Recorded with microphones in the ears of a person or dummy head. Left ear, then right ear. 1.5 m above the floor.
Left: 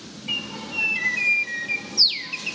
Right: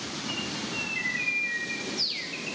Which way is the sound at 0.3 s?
35° left (ahead or behind).